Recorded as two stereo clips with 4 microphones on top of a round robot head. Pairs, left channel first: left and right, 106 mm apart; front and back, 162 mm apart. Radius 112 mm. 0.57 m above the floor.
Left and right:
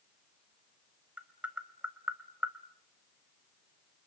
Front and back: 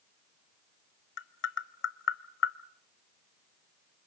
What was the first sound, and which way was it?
Tapping, 5° right.